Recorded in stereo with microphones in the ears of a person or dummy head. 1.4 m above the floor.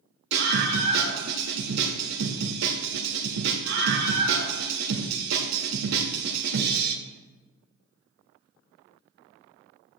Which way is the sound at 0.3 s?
90° right.